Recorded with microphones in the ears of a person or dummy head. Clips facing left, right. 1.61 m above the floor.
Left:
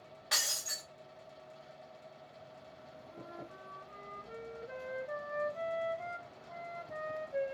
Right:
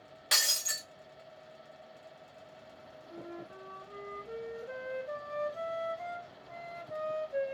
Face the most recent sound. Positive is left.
turn(degrees=-55)  # may be behind; listen again after turning